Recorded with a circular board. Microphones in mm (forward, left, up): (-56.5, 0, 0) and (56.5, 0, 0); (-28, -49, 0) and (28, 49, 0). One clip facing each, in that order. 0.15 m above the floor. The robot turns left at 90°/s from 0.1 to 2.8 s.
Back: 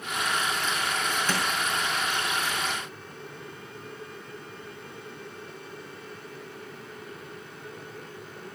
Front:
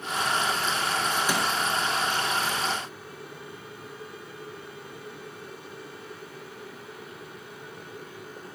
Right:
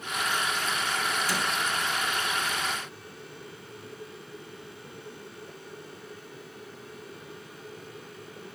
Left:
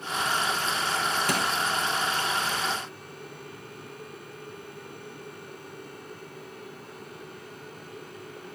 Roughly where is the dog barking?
I don't hear a dog barking.